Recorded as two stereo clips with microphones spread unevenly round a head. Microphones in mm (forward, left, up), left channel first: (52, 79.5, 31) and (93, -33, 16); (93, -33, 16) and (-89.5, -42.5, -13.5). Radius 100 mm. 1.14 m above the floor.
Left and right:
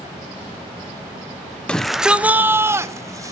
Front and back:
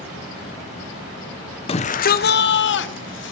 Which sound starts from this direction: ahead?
A shout, at 1.7 s.